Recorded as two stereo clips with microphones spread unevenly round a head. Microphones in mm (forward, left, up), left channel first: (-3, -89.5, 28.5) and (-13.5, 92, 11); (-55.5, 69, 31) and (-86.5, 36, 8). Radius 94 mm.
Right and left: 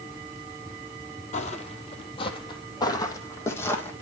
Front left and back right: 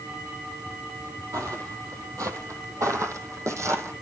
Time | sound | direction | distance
1.3 | footsteps | 110° right | 2 m